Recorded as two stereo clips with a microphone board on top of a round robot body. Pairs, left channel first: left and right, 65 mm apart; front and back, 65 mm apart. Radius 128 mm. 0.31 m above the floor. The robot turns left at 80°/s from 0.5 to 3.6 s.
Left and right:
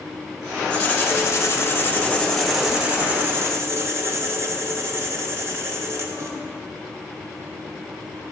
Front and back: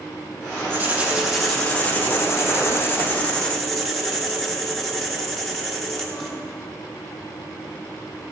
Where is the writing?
150° left, 1.4 m; by 6.4 s 85° right, 1.4 m.